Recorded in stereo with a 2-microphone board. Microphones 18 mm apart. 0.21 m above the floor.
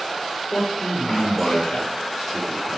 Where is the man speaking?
60° left (ahead or behind), 4.5 m; by 2.8 s 50° left (ahead or behind), 5 m.